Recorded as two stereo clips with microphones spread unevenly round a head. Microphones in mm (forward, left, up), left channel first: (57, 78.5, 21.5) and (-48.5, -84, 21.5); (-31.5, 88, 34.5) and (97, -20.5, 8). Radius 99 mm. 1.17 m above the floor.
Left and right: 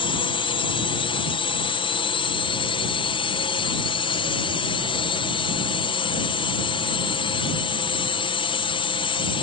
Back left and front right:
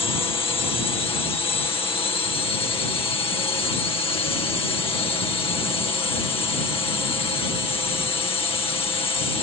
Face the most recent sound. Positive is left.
turn(degrees=95)